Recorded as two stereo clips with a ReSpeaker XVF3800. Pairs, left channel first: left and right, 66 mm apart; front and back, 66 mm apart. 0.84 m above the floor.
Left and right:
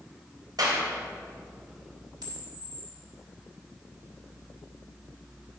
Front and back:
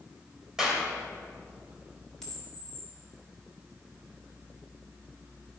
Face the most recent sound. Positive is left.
turn(degrees=-85)